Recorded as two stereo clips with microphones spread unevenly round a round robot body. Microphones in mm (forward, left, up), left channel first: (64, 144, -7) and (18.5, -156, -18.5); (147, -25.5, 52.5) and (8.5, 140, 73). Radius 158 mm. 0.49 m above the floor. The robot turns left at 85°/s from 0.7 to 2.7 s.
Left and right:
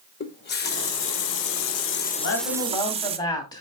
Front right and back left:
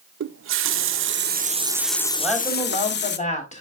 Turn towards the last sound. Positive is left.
turn(degrees=5)